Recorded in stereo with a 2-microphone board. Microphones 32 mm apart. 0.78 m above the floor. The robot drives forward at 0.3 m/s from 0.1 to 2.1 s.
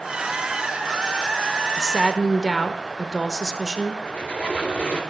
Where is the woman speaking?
5° right (ahead or behind), 0.7 m.